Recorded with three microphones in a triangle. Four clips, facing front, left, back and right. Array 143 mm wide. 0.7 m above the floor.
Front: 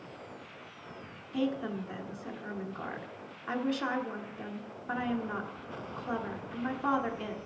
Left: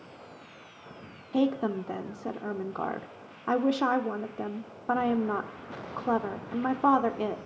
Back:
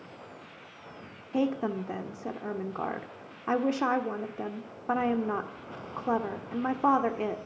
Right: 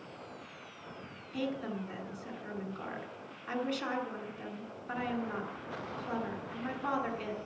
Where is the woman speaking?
130° left, 1.3 m.